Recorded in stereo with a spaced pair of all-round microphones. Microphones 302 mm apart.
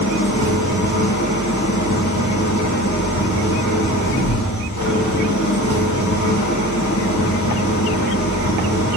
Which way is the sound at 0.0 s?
75° left (ahead or behind).